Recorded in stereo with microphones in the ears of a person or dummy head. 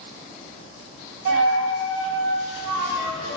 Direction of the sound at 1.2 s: 70° right (ahead or behind).